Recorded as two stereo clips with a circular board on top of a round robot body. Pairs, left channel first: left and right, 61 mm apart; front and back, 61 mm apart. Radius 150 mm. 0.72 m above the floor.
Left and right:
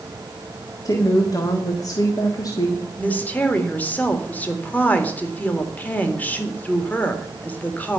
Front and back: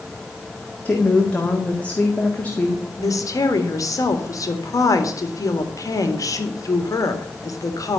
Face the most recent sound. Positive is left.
turn(degrees=25)